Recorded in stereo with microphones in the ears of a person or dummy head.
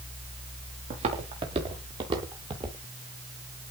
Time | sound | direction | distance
0.9 | footsteps | 45° right (ahead or behind) | 8.5 m